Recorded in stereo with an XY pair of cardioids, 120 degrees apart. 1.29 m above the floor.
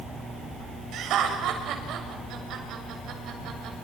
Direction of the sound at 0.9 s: 70° right.